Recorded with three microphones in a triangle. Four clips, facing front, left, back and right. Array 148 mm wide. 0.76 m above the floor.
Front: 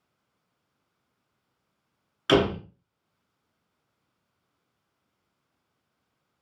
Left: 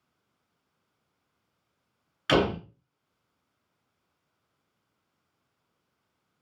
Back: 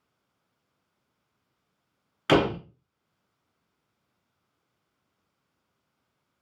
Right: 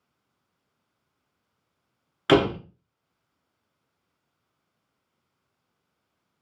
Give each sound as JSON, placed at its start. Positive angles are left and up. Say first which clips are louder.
{"t": 2.3, "sound": "a door slam", "louder": "right 4 dB, even", "azimuth_deg": -115, "distance_m": 0.7}